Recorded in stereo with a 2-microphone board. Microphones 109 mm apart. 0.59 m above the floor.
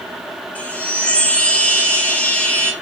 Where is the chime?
15° left (ahead or behind), 0.6 m.